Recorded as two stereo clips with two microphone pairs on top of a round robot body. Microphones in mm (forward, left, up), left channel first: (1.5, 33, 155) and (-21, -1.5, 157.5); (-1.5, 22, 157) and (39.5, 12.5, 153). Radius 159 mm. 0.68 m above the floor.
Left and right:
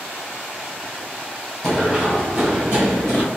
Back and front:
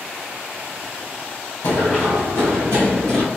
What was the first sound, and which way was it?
Running footsteps, 150° left.